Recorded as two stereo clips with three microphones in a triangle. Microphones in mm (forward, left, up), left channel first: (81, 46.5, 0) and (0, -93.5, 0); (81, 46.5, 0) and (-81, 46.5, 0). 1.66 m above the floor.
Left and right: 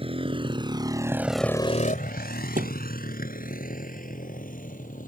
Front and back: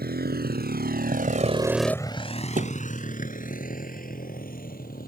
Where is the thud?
150° right.